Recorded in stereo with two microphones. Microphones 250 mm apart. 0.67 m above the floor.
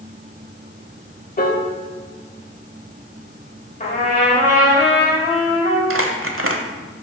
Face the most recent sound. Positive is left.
turn(degrees=-55)  # may be behind; listen again after turning